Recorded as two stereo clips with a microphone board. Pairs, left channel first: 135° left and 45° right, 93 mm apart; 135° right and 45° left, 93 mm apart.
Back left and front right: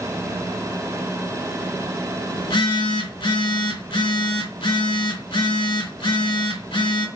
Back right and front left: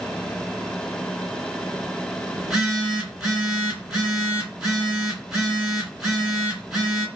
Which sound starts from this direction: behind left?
A phone buzzing, at 2.4 s.